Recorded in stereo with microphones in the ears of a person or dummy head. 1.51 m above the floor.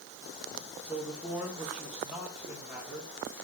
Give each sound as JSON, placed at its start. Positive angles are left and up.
{"t": 0.8, "sound": "a man speaking", "side_deg": -10, "distance_m": 3.5}